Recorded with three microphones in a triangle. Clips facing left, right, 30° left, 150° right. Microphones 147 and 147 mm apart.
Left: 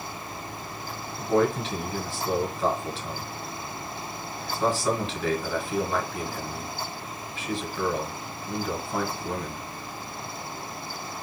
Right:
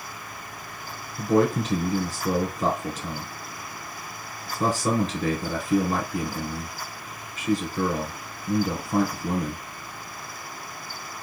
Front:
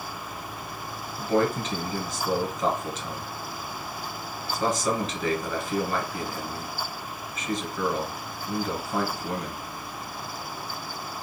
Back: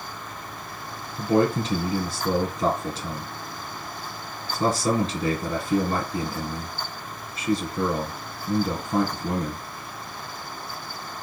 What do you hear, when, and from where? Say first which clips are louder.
1.2 s a man speaking: right 2 dB, back 3 dB; 110° right, 1.6 m